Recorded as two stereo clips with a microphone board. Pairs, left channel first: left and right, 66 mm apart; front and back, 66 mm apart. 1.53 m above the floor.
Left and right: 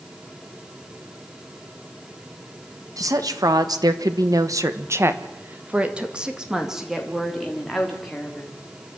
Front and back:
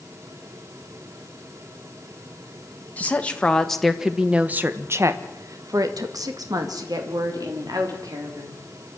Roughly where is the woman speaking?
Ahead right.